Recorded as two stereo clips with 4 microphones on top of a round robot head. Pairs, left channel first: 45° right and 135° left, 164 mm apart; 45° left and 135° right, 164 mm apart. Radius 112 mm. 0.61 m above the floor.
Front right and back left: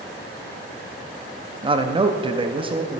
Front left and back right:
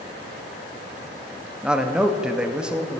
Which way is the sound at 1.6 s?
145° left.